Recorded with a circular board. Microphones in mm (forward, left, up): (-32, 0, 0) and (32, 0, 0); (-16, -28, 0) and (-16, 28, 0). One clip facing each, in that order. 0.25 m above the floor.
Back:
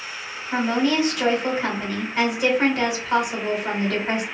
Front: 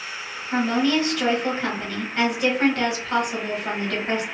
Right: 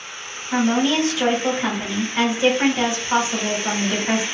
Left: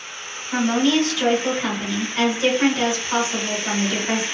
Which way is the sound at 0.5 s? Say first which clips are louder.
Even, even; 110° right.